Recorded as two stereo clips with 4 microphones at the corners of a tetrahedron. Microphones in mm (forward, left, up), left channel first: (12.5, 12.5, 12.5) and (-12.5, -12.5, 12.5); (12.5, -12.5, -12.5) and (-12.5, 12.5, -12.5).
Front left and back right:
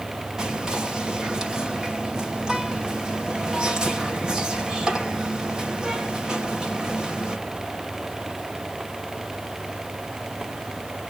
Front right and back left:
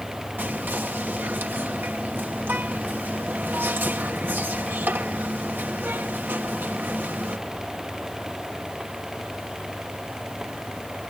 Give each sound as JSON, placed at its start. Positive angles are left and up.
{"t": 0.4, "sound": "whispering", "azimuth_deg": 155, "distance_m": 2.0}